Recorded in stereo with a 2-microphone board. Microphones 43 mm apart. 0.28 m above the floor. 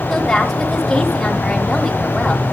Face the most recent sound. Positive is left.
turn(degrees=10)  # may be behind; listen again after turning